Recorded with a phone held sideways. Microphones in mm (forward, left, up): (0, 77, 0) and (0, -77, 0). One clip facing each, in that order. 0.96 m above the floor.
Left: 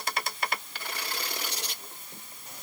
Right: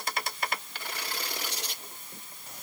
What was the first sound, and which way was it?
Only background noise.